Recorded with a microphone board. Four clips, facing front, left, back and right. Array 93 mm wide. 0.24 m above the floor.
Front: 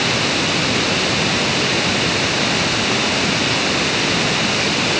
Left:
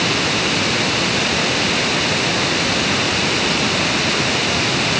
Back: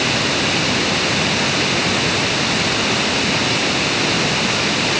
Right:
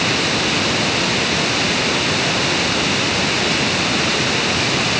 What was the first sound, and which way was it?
Only background noise.